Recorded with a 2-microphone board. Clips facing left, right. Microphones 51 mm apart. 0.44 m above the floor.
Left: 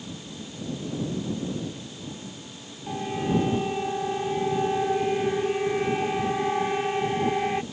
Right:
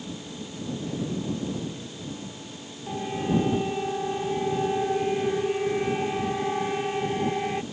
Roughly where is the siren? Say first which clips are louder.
Even; centre.